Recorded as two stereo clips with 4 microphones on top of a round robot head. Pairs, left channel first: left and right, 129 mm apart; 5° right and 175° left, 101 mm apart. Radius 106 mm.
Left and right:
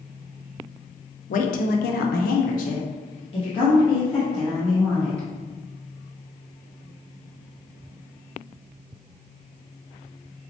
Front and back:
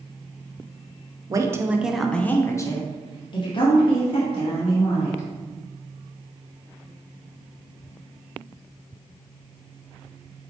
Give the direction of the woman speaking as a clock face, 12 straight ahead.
8 o'clock.